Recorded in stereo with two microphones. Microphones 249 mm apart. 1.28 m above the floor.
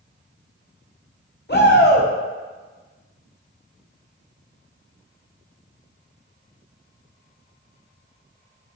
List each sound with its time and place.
1.5 s a shout: 45° left (ahead or behind), 0.8 m